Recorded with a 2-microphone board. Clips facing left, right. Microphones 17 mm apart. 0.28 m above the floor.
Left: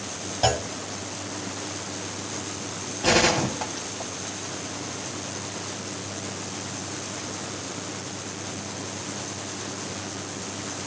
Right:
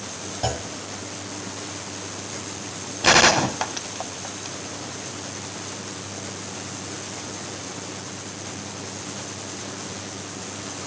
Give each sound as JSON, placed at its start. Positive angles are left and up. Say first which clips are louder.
{"t": 0.4, "sound": "a clunk", "louder": "left 5 dB", "side_deg": 25, "distance_m": 0.6}
{"t": 3.0, "sound": "a gunshot", "louder": "right 5 dB", "side_deg": -45, "distance_m": 0.8}